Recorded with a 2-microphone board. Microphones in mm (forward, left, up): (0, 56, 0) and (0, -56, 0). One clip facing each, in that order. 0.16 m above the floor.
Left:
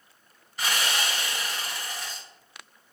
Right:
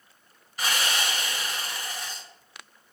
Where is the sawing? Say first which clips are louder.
Even; 5° right (ahead or behind), 1.3 m.